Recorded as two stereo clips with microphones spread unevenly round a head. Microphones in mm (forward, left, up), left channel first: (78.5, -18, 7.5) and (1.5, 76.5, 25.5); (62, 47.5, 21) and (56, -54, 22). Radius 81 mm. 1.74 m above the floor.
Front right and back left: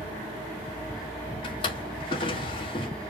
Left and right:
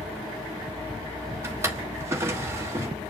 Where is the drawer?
65° right, 1.1 m.